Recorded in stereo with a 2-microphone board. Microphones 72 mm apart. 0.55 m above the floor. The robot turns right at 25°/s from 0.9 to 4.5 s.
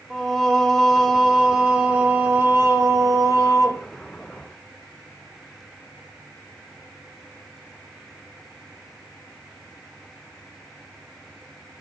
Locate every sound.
0.1 s singing: 175° right, 1.7 m; by 3.9 s 105° right, 1.7 m